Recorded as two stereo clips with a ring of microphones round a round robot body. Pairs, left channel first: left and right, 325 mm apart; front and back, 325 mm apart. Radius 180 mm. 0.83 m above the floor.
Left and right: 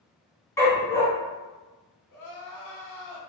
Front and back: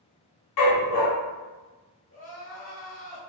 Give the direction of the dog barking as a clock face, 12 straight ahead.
12 o'clock.